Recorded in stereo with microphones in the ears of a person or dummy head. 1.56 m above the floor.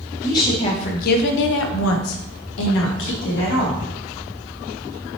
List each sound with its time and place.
0.2 s a woman speaking: 15° left (ahead or behind), 0.8 m; by 3.9 s 60° left (ahead or behind), 1.5 m